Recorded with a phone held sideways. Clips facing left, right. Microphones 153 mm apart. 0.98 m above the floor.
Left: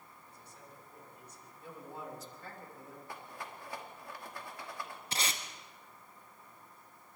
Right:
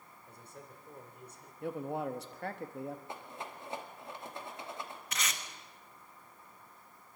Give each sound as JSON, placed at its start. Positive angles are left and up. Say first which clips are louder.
{"t": 0.3, "sound": "a man speaking", "louder": "right 5 dB", "side_deg": -65, "distance_m": 4.0}
{"t": 1.6, "sound": "a man speaking", "louder": "right 10 dB", "side_deg": -75, "distance_m": 1.3}
{"t": 3.1, "sound": "a rattle", "louder": "right 2 dB", "side_deg": -25, "distance_m": 2.0}
{"t": 5.1, "sound": "tape being pulled", "louder": "left 2 dB", "side_deg": 35, "distance_m": 1.4}